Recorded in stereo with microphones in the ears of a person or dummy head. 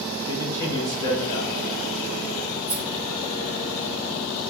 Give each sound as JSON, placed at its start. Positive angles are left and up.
{"t": 0.2, "sound": "a man speaking", "side_deg": 25, "distance_m": 1.3}
{"t": 2.7, "sound": "a rattle", "side_deg": 25, "distance_m": 1.3}